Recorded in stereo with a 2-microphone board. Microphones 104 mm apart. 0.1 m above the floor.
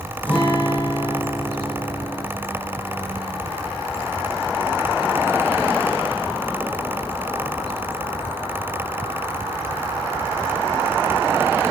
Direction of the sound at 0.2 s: 15° left (ahead or behind).